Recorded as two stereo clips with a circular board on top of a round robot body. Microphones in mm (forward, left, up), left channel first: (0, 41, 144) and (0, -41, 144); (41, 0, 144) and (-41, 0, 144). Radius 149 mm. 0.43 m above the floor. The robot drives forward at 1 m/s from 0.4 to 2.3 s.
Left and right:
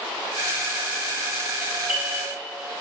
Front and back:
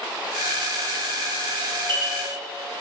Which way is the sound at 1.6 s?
165° right.